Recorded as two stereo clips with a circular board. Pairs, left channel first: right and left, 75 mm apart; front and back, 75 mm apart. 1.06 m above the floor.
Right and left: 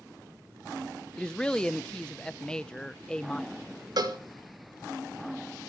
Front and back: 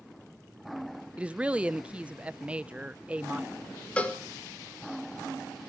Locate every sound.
1.2 s a woman speaking: 145° right, 0.5 m
4.0 s a cowbell: 70° left, 1.9 m